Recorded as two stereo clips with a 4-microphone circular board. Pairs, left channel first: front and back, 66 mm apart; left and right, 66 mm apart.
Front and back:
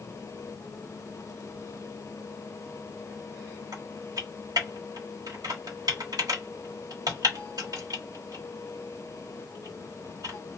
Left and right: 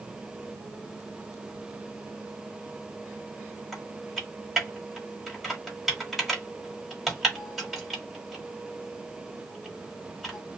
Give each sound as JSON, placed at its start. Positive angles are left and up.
{"t": 3.7, "sound": "typing on a keyboard", "azimuth_deg": 180, "distance_m": 1.3}